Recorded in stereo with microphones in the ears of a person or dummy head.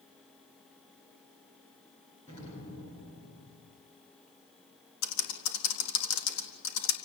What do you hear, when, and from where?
2.3 s an explosion: 30° left (ahead or behind), 9 m
5.0 s typing on a keyboard: 90° left, 4 m